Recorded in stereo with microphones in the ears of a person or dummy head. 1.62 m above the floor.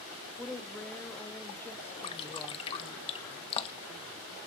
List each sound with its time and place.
0.4 s a woman speaking: 10° left (ahead or behind), 0.7 m
2.0 s dripping: 30° left (ahead or behind), 1.0 m